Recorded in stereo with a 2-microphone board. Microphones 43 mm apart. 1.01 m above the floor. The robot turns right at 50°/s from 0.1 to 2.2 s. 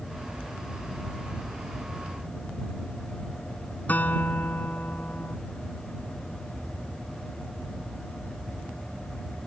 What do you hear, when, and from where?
3.9 s a guitar: 40° left (ahead or behind)